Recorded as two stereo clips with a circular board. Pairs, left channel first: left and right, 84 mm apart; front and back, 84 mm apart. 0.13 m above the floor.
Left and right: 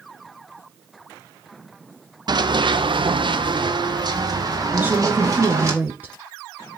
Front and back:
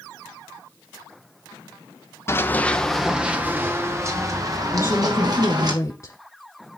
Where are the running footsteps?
60° right, 1.6 m; by 5.7 s 140° right, 4.5 m.